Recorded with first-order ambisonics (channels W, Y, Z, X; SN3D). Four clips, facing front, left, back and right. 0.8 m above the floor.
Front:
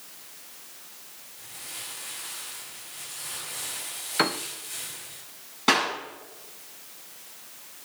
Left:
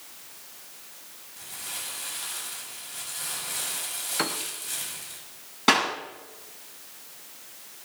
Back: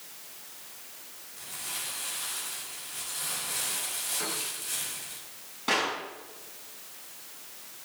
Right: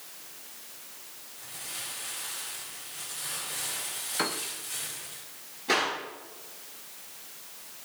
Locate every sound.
1.4 s crumpling: 120° left, 6.5 m
4.2 s a piano: 10° left, 0.9 m
5.7 s a clap: 65° left, 7.5 m